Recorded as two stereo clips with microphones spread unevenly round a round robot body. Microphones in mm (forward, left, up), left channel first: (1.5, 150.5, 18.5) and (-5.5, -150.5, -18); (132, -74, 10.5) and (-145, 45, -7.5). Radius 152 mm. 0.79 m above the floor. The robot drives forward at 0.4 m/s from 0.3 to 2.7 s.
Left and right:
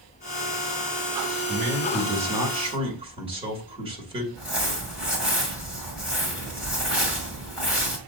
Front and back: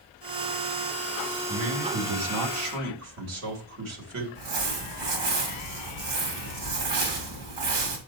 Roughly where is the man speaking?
Behind.